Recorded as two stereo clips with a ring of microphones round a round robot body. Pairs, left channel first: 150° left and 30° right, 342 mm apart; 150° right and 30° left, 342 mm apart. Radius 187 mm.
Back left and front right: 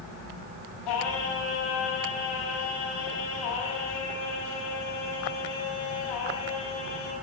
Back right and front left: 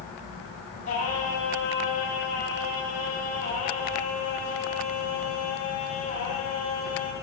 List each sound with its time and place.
0.8 s singing: 140° left, 6 m